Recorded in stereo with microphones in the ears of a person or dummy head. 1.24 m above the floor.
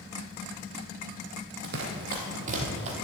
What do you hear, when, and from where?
1.6 s running footsteps: 50° right (ahead or behind), 2.0 m; by 2.9 s 35° right (ahead or behind), 1.9 m